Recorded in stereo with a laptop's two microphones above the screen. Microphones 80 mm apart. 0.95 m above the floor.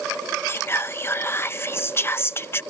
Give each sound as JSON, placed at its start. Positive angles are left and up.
{"t": 0.5, "sound": "whispering", "side_deg": 30}